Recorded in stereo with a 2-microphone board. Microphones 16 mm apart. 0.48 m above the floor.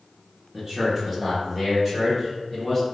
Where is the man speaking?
15° right (ahead or behind), 1.0 m; by 2.8 s centre (ahead or behind), 2.0 m.